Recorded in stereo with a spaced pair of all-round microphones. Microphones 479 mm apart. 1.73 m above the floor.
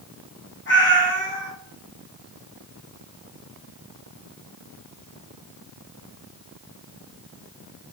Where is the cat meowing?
25° left (ahead or behind), 1.1 m.